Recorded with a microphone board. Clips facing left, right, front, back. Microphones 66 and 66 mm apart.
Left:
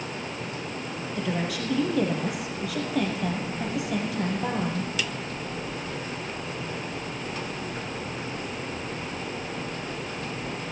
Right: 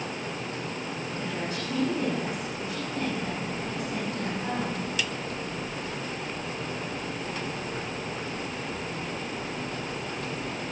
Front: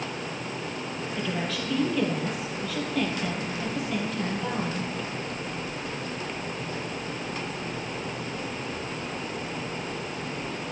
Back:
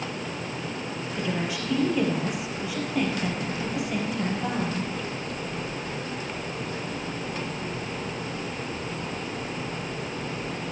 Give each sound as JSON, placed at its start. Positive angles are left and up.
{"t": 1.1, "sound": "a woman speaking", "azimuth_deg": 100, "distance_m": 4.0}